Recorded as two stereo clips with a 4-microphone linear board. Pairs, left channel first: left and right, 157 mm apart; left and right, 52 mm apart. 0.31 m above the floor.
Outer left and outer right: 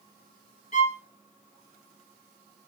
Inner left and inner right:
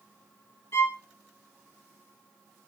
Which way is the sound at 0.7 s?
50° left (ahead or behind).